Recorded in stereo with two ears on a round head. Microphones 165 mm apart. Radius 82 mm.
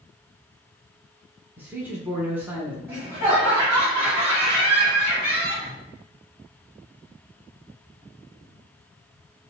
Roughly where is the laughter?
Right.